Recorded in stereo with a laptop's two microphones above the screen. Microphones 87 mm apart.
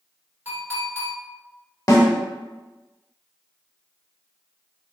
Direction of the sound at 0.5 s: 25° right (ahead or behind).